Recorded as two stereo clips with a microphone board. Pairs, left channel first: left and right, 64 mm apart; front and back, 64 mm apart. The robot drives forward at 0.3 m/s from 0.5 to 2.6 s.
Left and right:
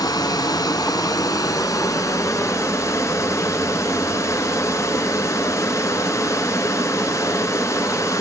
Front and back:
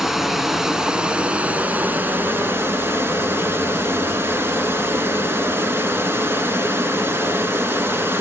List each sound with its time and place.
0.0 s running water: 95° left, 1.0 m; by 8.2 s 130° left, 1.2 m